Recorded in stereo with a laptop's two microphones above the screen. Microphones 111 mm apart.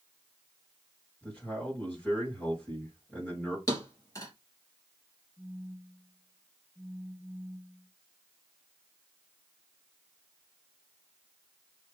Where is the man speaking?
15° left (ahead or behind), 4.5 m.